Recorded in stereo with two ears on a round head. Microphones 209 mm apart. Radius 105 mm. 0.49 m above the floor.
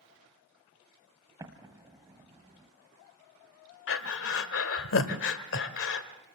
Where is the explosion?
15° right (ahead or behind), 1.8 m.